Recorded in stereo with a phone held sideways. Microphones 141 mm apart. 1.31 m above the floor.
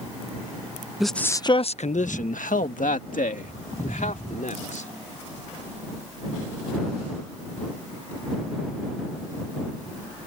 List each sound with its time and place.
1.0 s a man speaking: centre (ahead or behind); by 4.9 s 75° left (ahead or behind)